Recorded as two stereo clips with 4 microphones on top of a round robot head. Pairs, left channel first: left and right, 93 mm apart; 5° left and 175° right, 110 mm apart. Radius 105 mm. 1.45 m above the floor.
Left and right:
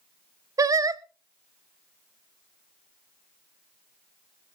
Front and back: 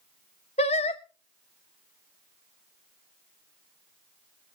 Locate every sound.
0.6 s singing: 40° right, 0.7 m